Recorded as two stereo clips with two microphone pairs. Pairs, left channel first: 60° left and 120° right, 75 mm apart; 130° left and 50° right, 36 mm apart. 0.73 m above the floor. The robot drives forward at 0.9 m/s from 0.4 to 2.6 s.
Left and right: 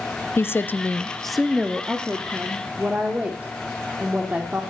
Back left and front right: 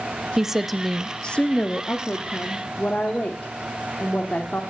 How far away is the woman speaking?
About 0.8 m.